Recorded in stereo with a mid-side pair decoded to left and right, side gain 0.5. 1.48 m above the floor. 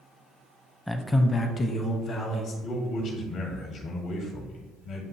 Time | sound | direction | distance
0.9 | a man speaking | 5° left | 0.7 m
2.6 | a man speaking | 70° left | 1.5 m